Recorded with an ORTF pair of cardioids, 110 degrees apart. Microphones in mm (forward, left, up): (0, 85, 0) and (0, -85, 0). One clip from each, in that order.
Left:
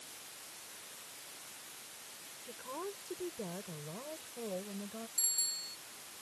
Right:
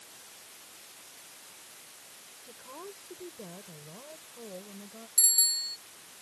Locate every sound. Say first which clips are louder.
2.4 s a woman speaking: left 3 dB; 15° left; by 5.1 s 20° left
5.2 s a bicycle bell: right 10 dB; 65° right